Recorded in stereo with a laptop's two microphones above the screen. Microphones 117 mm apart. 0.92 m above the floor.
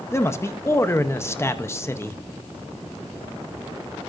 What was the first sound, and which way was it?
A man speaking, 20° left (ahead or behind).